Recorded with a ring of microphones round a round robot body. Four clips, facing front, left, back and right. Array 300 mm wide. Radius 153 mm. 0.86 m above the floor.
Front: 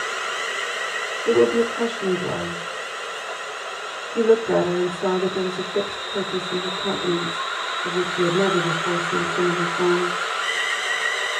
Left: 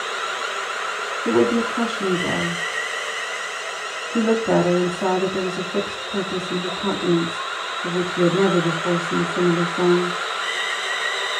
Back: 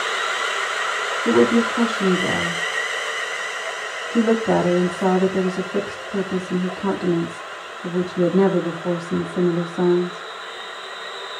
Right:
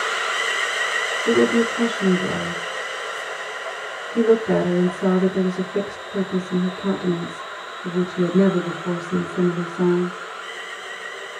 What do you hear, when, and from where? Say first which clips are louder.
1.2 s a woman speaking: right 1 dB, back 1 dB; 150° left, 7 m